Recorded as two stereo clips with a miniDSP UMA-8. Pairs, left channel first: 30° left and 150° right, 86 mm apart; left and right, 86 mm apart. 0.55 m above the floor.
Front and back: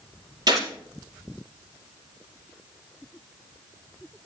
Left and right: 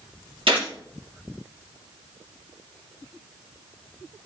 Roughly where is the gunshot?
Right.